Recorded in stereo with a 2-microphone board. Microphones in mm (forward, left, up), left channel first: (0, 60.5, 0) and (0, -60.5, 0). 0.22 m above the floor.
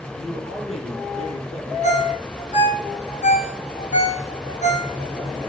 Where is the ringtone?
85° left, 4.5 m.